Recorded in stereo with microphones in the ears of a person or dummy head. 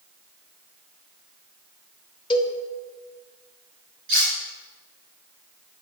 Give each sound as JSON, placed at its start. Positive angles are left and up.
{"t": 2.3, "sound": "a cowbell", "side_deg": 35, "distance_m": 0.7}
{"t": 4.1, "sound": "cutlery clinking", "side_deg": -65, "distance_m": 2.5}